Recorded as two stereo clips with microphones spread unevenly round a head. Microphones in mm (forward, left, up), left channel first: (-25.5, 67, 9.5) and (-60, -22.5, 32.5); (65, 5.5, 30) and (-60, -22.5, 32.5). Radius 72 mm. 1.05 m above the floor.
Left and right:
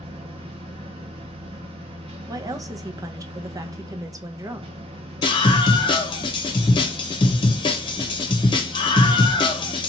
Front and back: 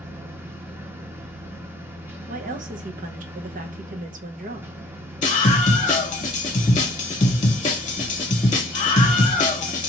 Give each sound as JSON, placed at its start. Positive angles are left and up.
{"t": 0.0, "sound": "a machine running", "azimuth_deg": -100, "distance_m": 0.9}
{"t": 2.3, "sound": "a woman speaking", "azimuth_deg": -170, "distance_m": 0.9}
{"t": 5.2, "sound": "a scream", "azimuth_deg": 60, "distance_m": 0.7}